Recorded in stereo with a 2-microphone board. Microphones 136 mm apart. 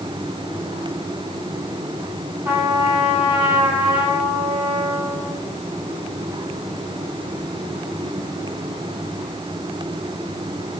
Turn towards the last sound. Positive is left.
turn(degrees=-15)  # may be behind; listen again after turning